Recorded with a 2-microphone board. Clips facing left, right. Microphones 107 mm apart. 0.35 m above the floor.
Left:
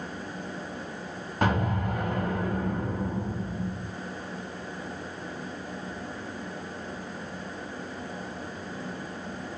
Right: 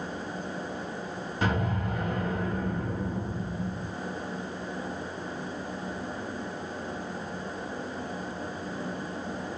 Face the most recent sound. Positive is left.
turn(degrees=55)  # may be behind; listen again after turning